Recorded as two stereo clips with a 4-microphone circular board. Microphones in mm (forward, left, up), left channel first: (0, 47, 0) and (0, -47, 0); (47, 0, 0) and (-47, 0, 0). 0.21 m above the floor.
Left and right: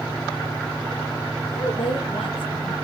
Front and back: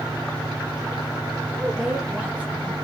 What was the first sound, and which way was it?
A woman speaking, 105° left.